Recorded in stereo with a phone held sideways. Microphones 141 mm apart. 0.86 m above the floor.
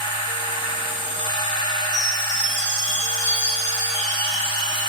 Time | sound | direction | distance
0.0 | a machine running | 35° left (ahead or behind) | 0.8 m
1.9 | a chime | 65° right (ahead or behind) | 2.5 m